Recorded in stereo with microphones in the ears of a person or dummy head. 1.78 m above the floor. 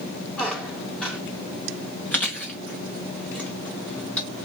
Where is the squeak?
5° left (ahead or behind), 1.9 m.